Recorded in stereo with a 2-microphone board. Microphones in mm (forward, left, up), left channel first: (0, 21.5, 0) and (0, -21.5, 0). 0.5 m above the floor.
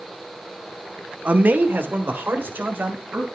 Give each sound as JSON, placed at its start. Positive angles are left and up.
{"t": 1.2, "sound": "a man speaking", "side_deg": -35, "distance_m": 0.9}